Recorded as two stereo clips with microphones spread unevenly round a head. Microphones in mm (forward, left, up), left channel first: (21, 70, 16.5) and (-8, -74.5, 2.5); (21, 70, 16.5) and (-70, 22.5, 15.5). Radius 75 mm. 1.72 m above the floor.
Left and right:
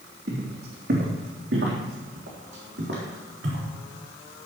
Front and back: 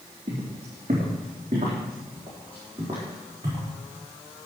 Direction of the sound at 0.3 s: 120° right.